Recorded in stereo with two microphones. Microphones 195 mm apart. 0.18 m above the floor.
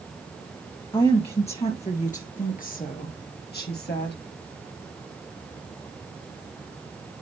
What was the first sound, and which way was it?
A woman speaking, 25° left (ahead or behind).